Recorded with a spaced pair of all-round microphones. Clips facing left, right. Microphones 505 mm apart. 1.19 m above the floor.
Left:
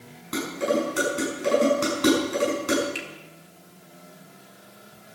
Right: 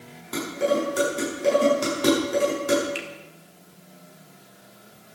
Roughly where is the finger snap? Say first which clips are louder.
Right 2 dB; left.